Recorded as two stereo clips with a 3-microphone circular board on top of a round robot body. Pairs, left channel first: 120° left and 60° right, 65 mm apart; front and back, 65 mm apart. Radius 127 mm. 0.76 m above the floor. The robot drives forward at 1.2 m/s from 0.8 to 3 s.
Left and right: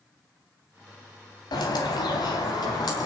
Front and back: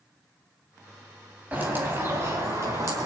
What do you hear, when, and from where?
1.5 s a bird: 110° left, 3 m; by 3.1 s 135° left, 4 m